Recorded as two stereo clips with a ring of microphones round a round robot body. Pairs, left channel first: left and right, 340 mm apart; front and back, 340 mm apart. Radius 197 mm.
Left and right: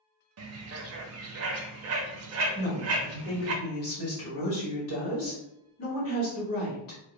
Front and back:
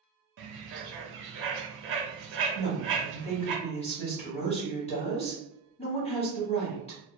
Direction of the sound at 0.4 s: 130° right.